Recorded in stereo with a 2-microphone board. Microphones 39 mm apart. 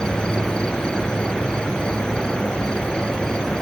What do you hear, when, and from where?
0.0 s an insect: 20° left (ahead or behind)